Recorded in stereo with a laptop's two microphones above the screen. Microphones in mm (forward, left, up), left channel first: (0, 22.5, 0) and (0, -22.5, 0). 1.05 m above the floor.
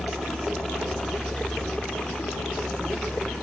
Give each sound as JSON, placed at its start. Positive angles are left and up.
{"t": 0.0, "sound": "a helicopter", "side_deg": -10}